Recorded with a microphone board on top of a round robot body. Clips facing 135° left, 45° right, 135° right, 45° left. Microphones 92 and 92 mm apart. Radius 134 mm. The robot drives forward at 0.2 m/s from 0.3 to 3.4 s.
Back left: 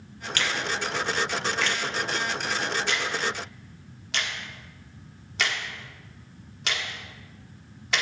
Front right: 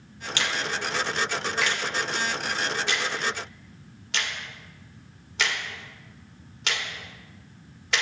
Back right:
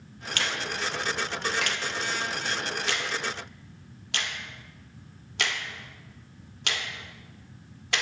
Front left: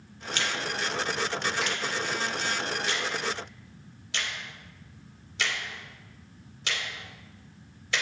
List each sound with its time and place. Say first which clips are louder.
0.4 s a finger snap: even, even; 115° right, 1.3 m; by 8.0 s 135° right, 1.6 m